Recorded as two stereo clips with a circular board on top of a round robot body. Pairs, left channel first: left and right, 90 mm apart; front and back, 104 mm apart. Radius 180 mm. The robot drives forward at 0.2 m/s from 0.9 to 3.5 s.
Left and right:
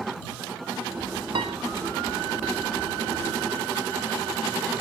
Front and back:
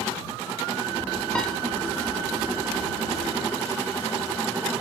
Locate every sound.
1.4 s a piano: 80° right, 0.8 m